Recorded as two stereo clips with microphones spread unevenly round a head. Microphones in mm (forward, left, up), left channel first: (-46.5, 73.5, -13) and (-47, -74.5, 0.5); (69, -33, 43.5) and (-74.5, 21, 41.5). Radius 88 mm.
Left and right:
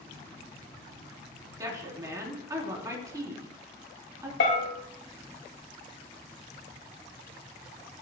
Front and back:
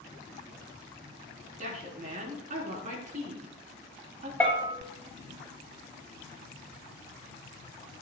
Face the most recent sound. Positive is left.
turn(degrees=60)